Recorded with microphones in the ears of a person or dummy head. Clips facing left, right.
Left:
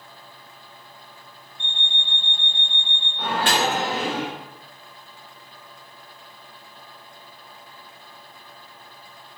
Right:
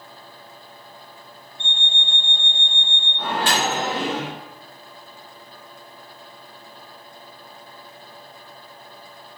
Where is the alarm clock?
50° right (ahead or behind), 1.5 m.